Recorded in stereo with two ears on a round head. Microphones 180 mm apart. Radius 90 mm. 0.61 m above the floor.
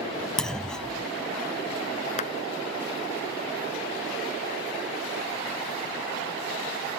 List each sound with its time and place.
0.4 s a clunk: 5° left (ahead or behind)
2.2 s a clap: 40° left (ahead or behind)